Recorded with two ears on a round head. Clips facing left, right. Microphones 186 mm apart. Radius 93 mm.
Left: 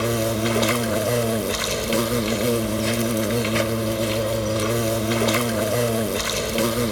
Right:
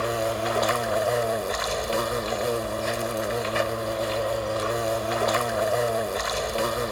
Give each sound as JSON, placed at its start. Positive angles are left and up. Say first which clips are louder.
{"t": 0.0, "sound": "an insect", "louder": "left 4 dB", "side_deg": 40}